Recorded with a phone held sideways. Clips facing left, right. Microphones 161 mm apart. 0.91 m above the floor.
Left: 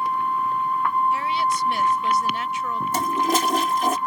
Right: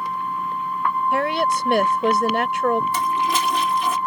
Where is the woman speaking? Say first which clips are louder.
Right 3 dB; 70° right (ahead or behind).